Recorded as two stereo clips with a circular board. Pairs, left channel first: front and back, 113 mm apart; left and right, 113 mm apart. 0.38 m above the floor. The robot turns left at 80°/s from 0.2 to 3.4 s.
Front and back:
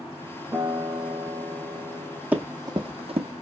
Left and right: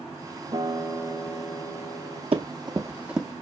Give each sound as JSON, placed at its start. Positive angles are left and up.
{"t": 0.5, "sound": "a guitar", "azimuth_deg": -115, "distance_m": 0.8}
{"t": 2.3, "sound": "running footsteps", "azimuth_deg": -105, "distance_m": 0.7}